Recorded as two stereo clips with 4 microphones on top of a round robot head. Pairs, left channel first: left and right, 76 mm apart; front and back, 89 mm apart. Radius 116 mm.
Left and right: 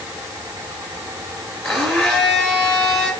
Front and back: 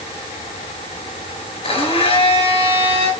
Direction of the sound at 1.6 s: 5° left.